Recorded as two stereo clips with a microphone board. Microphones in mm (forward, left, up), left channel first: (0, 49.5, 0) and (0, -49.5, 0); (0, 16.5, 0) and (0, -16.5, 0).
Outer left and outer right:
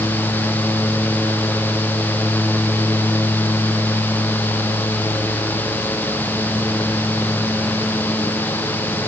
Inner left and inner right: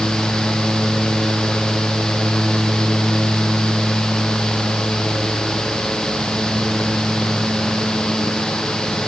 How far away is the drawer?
No drawer in this recording.